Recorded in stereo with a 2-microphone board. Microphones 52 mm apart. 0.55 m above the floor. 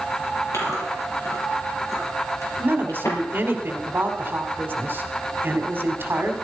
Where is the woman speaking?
45° right (ahead or behind), 2 m.